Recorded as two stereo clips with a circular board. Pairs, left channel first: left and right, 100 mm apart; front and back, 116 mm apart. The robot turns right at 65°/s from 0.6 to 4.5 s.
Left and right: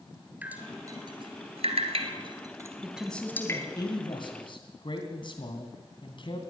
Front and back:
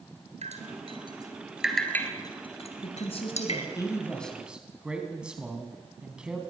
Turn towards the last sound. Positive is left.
turn(degrees=100)